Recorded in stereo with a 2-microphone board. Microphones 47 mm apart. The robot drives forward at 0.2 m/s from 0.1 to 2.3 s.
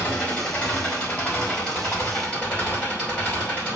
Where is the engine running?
20° left (ahead or behind), 4 m.